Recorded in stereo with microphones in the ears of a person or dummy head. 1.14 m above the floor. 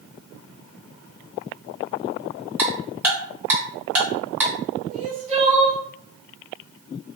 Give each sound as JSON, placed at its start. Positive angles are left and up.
{"t": 2.6, "sound": "ticking", "side_deg": -10, "distance_m": 0.7}
{"t": 4.9, "sound": "crying", "side_deg": -30, "distance_m": 0.7}